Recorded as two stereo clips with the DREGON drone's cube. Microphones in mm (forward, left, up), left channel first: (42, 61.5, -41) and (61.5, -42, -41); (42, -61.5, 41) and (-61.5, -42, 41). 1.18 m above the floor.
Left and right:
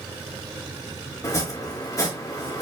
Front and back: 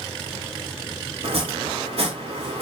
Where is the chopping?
155° left, 3 m.